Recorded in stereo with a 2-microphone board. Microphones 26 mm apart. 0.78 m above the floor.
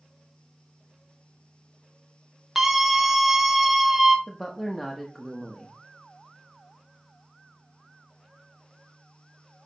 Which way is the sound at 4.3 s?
20° left (ahead or behind).